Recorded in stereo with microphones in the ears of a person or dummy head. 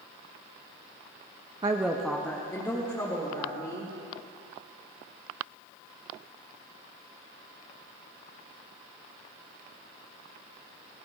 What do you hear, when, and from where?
1.6 s a woman speaking: 20° right (ahead or behind), 0.6 m; by 3.9 s 20° left (ahead or behind), 3.5 m